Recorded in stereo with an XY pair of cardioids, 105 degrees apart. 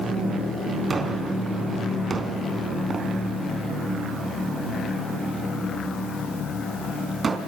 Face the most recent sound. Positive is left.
turn(degrees=-35)